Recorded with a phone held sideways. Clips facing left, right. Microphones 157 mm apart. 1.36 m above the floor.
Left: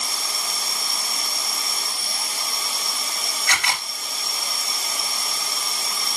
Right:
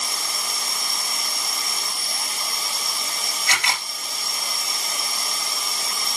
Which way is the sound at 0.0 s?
Centre (ahead or behind).